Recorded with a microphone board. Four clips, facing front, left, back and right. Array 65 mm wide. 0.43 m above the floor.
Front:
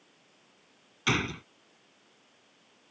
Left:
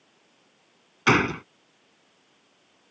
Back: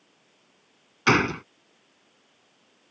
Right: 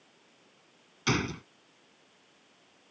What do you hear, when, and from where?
1.1 s a gunshot: 135° left